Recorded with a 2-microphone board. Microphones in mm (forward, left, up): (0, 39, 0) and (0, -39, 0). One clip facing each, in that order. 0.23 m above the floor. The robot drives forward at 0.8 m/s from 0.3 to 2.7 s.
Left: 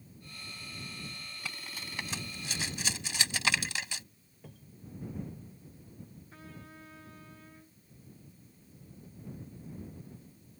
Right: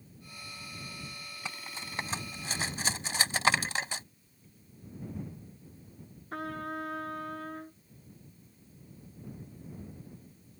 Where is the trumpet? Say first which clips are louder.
Right 17 dB; 70° right (ahead or behind).